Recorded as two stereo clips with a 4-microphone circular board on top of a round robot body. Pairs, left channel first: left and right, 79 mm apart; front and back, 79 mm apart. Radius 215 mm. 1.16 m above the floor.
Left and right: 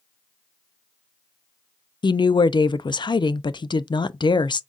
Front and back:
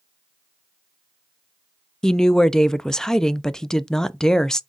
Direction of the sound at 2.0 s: 80° left.